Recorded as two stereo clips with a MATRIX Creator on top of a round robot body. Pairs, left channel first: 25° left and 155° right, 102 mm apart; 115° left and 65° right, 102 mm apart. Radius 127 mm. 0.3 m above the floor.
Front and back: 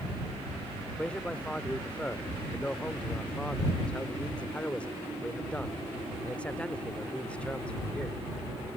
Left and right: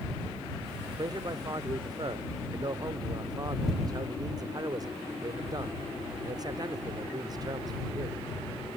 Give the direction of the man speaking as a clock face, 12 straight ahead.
2 o'clock.